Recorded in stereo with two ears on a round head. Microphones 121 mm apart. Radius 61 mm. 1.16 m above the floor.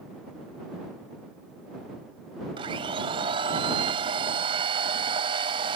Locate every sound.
2.6 s a blender: 45° right (ahead or behind)